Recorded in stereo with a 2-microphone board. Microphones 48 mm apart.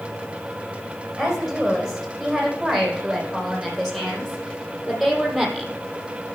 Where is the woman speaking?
5° left (ahead or behind), 6.5 m.